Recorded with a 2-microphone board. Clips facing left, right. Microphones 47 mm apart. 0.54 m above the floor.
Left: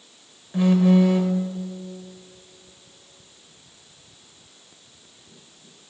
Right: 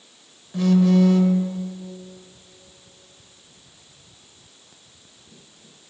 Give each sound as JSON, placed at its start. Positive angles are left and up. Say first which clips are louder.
{"t": 0.5, "sound": "a phone buzzing", "louder": "even", "side_deg": 20, "distance_m": 0.8}